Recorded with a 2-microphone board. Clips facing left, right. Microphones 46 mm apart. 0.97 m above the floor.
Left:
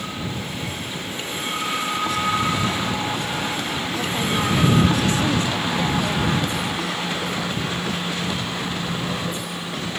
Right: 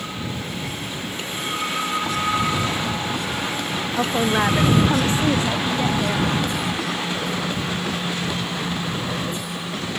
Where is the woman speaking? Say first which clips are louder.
Right 5 dB; 50° right (ahead or behind); by 6.3 s 10° right (ahead or behind).